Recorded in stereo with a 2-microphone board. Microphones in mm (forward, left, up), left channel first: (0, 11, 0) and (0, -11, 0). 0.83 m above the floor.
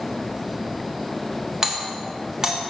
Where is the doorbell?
20° right (ahead or behind), 1.2 m.